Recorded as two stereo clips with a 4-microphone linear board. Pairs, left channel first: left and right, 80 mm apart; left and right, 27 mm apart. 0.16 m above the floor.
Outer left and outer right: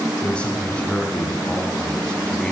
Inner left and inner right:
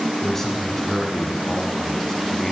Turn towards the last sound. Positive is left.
turn(degrees=15)  # may be behind; listen again after turning